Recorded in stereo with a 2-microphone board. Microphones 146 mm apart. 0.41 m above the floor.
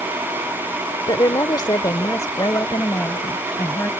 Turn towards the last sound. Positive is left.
turn(degrees=20)  # may be behind; listen again after turning